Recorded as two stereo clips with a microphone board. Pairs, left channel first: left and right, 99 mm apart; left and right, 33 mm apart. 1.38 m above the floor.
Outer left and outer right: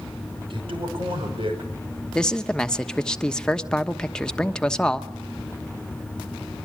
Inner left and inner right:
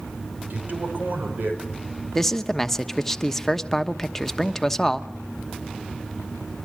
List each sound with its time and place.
0.5 s a man speaking: 65° right (ahead or behind), 6 m
2.1 s a man speaking: 10° left (ahead or behind), 1.0 m